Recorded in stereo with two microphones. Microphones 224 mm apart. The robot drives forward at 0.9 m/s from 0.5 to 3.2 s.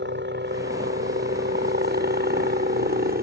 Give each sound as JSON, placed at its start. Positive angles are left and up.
{"t": 0.0, "sound": "a helicopter", "side_deg": -55}